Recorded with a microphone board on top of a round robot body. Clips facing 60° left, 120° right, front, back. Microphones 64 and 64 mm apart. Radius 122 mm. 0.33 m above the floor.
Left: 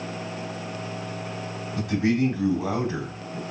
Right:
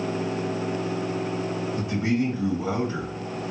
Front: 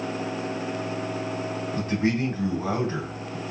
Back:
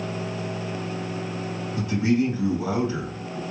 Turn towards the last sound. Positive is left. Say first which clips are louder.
# left 3 dB, back 3 dB
turn(degrees=45)